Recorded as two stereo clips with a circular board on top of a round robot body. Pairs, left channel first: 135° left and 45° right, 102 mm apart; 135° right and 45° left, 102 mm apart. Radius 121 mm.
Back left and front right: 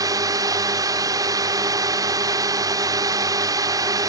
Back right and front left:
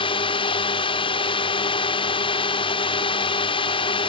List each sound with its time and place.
0.0 s a drone: 100° right